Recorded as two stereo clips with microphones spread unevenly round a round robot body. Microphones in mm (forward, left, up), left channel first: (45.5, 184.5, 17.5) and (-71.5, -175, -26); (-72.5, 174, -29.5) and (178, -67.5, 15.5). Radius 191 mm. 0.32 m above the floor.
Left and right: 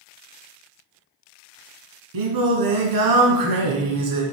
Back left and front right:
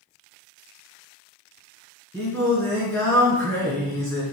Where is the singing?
140° right, 1.8 m.